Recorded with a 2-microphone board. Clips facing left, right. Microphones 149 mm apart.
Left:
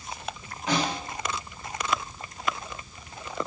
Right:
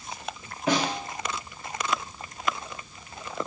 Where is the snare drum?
55° right (ahead or behind), 2 m.